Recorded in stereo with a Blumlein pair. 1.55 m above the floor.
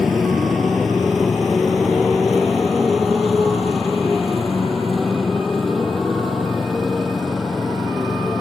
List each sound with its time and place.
0.0 s a motorcycle: 15° left